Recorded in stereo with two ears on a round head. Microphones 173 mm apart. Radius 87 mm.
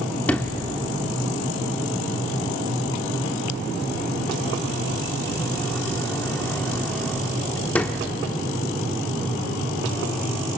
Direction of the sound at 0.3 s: 10° left (ahead or behind).